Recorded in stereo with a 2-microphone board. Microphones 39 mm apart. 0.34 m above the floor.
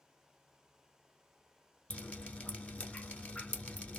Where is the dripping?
30° left (ahead or behind), 0.9 m.